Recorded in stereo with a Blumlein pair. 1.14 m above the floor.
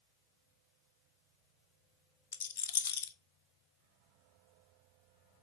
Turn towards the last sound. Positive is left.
turn(degrees=60)